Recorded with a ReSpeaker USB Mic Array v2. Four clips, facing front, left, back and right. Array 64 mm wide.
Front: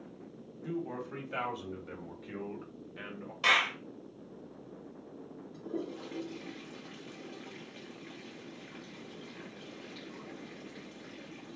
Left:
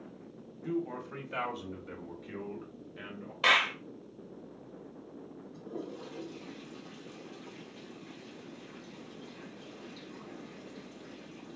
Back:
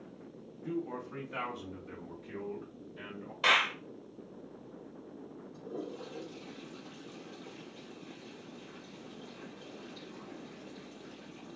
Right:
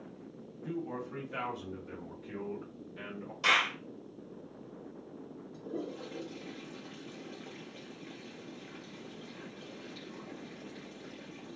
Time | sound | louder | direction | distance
0.6 | a man speaking | left 3 dB, even | 55° left | 2.5 m
3.4 | a clap | left 2 dB, even | 100° left | 1.3 m
5.5 | a toilet flushing | right 2 dB, front 3 dB | 15° right | 2.0 m